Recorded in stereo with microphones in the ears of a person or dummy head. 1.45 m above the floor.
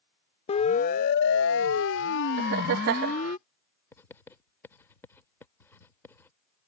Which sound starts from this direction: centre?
Writing, at 3.9 s.